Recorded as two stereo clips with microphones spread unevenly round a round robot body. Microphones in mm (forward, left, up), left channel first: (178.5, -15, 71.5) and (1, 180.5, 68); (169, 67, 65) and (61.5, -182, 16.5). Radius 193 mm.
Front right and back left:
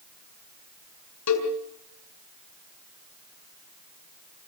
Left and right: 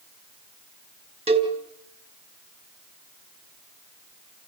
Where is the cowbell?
50° right, 3.5 m.